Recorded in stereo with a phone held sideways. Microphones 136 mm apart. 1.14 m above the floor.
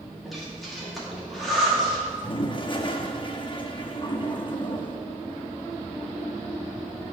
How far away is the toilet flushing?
About 0.8 m.